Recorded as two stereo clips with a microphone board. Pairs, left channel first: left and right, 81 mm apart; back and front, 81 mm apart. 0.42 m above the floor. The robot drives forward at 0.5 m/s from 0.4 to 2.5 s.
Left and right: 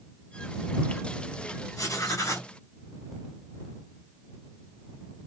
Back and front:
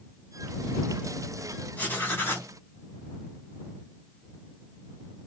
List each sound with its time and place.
1.8 s writing: 115° left, 1.6 m; by 2.5 s 130° left, 1.8 m